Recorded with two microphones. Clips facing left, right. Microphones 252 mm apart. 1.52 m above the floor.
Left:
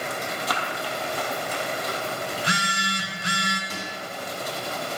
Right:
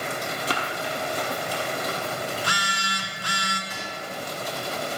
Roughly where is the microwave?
Left.